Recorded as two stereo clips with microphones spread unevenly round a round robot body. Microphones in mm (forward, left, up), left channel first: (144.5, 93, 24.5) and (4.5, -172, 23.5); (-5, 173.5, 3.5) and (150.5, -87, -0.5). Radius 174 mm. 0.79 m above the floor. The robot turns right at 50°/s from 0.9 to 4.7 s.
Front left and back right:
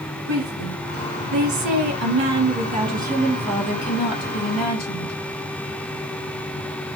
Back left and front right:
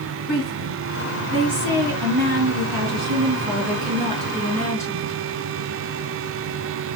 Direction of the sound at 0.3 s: 150° right.